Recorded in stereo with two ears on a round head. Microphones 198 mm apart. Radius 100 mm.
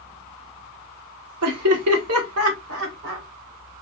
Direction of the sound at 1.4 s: 80° right.